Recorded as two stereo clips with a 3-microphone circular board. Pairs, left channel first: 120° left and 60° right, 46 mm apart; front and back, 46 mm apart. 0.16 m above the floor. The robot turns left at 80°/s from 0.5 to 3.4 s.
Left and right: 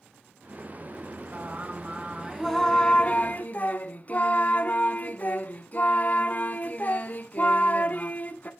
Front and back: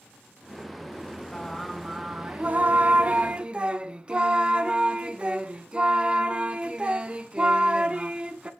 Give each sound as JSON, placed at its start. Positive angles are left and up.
{"t": 1.3, "sound": "singing", "azimuth_deg": -65, "distance_m": 0.7}